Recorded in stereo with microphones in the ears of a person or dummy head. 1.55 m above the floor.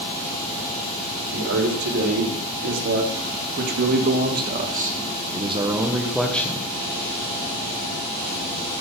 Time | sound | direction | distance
1.3 | a man speaking | 75° right (ahead or behind) | 4 m